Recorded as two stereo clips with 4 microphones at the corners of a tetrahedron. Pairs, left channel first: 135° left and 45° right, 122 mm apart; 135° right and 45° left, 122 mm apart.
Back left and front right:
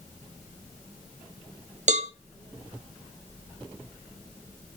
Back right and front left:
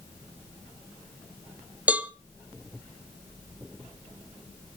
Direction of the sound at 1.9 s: 35° right.